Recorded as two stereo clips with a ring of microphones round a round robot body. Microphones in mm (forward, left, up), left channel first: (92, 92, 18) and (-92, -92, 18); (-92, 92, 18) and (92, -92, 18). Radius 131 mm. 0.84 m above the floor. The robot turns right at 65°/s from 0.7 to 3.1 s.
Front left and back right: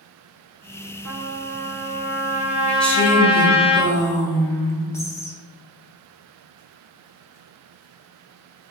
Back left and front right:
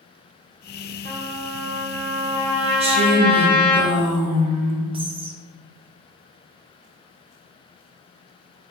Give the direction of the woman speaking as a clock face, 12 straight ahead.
1 o'clock.